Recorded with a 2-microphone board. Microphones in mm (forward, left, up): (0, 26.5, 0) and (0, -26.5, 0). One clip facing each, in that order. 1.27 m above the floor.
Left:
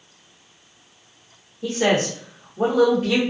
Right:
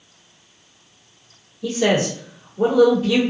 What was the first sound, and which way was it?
A man speaking, 55° left (ahead or behind).